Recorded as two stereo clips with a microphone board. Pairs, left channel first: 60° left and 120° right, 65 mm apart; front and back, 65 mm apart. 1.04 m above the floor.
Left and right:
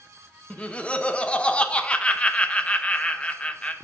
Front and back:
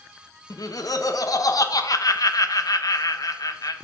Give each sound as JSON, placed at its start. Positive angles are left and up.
{"t": 0.5, "sound": "laughter", "azimuth_deg": -10, "distance_m": 0.8}